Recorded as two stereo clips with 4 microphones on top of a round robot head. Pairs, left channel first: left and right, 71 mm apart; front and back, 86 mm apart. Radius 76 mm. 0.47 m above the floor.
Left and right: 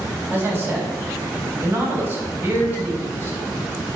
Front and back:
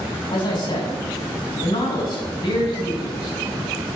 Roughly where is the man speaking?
Ahead right.